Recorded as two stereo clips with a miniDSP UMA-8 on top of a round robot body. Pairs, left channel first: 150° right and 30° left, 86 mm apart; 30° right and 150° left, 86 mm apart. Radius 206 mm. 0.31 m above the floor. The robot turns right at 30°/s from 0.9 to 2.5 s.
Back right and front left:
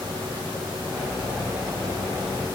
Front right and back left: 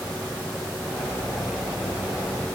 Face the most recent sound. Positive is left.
No sound to turn to.